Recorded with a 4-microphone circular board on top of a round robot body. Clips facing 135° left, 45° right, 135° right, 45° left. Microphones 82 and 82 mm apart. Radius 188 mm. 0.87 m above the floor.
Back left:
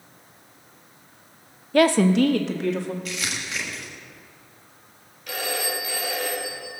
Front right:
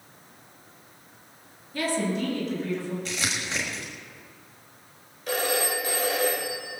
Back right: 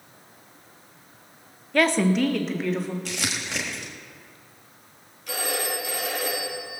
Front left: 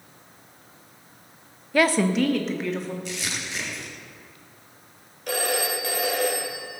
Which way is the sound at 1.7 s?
130° left.